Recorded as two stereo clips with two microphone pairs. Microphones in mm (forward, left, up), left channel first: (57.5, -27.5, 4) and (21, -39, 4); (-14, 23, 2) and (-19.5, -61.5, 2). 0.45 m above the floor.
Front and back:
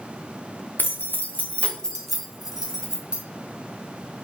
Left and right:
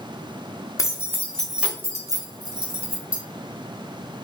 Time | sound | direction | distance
0.8 | keys jangling | 40° left | 0.9 m